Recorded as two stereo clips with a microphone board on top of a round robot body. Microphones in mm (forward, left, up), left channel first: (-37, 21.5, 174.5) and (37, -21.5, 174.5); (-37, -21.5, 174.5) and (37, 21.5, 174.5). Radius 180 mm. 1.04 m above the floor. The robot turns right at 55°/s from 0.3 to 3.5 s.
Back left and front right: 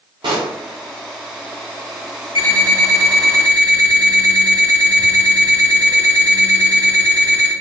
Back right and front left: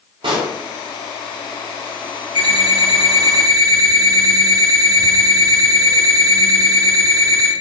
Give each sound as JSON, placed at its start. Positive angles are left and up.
{"t": 0.2, "sound": "a pop", "azimuth_deg": 5, "distance_m": 0.5}
{"t": 2.4, "sound": "an alarm clock", "azimuth_deg": 15, "distance_m": 0.7}